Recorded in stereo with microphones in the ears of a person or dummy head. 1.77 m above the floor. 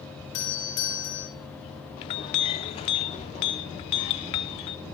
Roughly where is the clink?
Left.